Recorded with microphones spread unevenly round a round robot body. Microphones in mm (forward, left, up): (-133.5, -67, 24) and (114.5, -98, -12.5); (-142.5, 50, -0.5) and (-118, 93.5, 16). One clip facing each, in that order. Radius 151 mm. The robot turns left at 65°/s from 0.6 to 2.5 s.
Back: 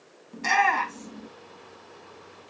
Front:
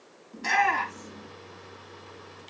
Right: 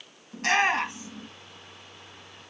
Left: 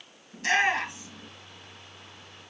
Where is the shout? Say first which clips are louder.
Back 2 dB, right 1 dB; 135° right, 4.5 m; by 1.3 s straight behind, 4.5 m.